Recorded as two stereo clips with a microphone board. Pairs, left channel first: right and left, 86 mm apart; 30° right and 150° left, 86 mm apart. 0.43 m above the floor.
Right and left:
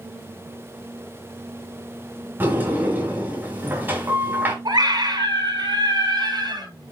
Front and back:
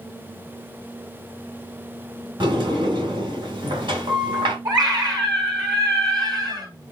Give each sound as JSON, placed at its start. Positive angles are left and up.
{"t": 2.4, "sound": "a sliding door", "azimuth_deg": 155, "distance_m": 3.5}
{"t": 4.7, "sound": "a scream", "azimuth_deg": 120, "distance_m": 3.5}